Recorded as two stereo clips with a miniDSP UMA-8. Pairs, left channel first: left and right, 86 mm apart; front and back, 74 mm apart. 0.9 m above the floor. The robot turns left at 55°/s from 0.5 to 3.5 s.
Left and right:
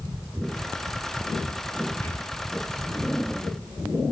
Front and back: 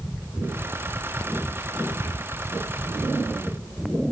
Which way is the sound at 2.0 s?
145° left.